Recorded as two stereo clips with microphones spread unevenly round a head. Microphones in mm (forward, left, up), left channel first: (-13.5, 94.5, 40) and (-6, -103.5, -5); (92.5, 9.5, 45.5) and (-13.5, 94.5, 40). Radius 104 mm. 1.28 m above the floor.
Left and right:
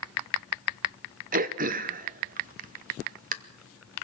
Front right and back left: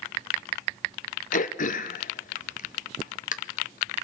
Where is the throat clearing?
55° right, 0.8 m.